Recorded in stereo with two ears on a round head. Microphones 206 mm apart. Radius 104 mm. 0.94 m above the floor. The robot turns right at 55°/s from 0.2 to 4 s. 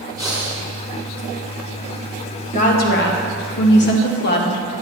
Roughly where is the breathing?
Centre.